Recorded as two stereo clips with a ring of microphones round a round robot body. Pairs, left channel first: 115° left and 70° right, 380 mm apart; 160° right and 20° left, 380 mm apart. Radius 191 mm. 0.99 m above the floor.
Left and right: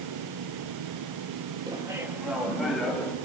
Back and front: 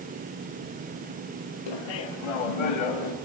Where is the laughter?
145° right, 1.7 m; by 3.1 s 160° right, 2.5 m.